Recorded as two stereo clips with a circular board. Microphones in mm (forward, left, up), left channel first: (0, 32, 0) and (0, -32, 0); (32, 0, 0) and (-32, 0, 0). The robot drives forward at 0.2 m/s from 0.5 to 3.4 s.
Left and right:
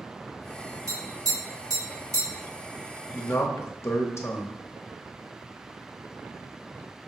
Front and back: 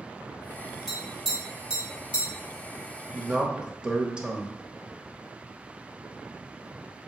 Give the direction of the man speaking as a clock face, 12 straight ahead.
8 o'clock.